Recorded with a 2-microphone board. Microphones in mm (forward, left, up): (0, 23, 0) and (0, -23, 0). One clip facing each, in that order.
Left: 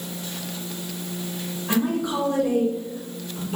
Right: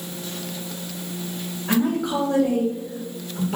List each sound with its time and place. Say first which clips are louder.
1.7 s a woman speaking: right 2 dB; 75° right (ahead or behind), 1.7 m